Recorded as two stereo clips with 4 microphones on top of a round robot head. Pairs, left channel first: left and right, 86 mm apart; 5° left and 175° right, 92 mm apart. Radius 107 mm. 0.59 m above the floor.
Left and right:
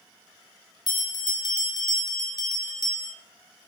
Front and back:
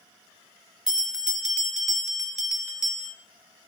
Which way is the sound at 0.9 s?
105° left.